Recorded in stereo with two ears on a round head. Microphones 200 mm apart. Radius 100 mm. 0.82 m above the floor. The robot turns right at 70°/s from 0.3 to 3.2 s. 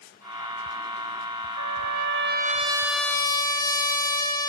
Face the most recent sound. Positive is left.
turn(degrees=15)